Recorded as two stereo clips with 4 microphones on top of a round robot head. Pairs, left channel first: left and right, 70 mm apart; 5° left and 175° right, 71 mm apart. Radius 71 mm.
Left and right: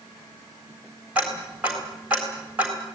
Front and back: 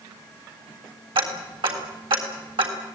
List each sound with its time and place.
1.1 s ticking: 165° right, 3.5 m